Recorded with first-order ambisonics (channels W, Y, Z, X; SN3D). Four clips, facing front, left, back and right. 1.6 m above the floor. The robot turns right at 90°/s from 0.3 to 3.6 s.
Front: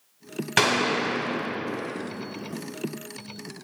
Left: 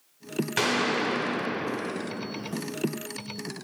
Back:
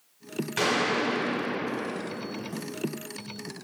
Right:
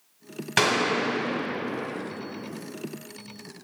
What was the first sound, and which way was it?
A gunshot, 30° right.